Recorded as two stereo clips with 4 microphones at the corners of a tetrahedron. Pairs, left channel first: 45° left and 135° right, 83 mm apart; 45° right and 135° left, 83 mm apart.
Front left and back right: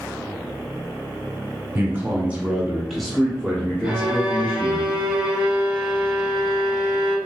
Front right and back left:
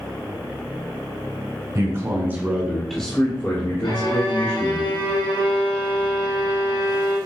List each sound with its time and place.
1.8 s a man speaking: 165° left, 1.7 m; by 4.8 s 15° right, 2.5 m
3.8 s a violin: 55° right, 1.9 m